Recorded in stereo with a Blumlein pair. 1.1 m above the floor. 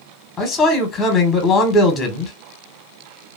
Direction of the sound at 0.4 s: 15° left.